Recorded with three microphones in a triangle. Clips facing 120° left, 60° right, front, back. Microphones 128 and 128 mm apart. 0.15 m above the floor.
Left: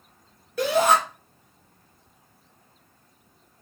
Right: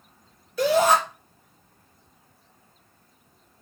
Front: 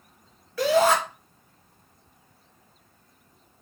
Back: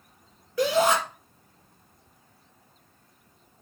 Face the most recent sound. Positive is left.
turn(degrees=115)